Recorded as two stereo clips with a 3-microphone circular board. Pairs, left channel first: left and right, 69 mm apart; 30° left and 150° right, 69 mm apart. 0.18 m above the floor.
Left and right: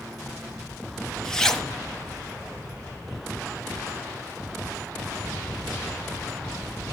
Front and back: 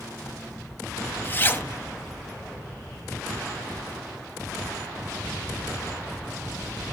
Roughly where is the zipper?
Ahead.